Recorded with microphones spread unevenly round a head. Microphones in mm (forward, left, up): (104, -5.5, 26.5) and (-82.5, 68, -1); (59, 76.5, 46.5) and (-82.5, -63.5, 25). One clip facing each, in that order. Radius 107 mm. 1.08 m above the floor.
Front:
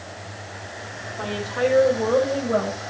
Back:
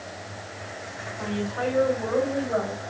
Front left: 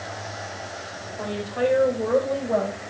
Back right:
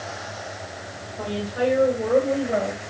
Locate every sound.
1.2 s a woman speaking: 50° right, 5 m; by 2.8 s 60° right, 4.5 m